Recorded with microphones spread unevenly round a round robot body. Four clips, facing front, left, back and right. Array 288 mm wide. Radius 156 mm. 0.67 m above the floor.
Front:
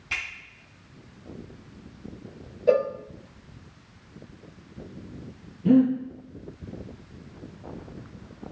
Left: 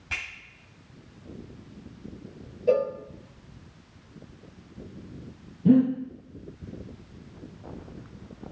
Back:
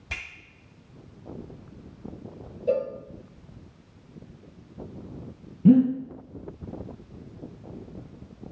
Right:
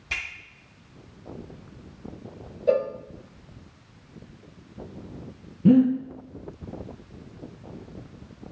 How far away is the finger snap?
About 3.5 m.